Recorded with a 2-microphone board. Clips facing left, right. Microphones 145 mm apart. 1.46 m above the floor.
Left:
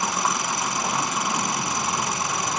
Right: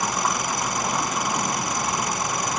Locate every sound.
0.0 s an engine running: centre (ahead or behind)